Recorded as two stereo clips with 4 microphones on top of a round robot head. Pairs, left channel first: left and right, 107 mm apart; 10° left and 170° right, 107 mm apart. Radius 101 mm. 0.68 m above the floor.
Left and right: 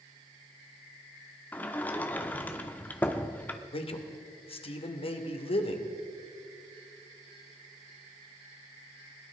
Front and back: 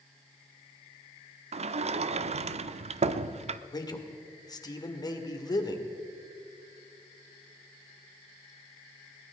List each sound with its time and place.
1.5 s a sliding door: 165° left, 0.6 m
3.7 s a man speaking: 60° left, 2 m